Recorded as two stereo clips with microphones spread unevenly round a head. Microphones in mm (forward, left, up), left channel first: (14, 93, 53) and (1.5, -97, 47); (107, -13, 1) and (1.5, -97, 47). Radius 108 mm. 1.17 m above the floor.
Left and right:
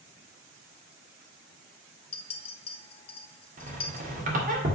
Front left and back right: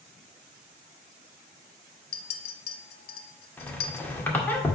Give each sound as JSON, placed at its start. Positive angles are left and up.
{"t": 2.1, "sound": "a clink", "azimuth_deg": 25, "distance_m": 0.8}
{"t": 3.6, "sound": "a squeak", "azimuth_deg": -45, "distance_m": 1.8}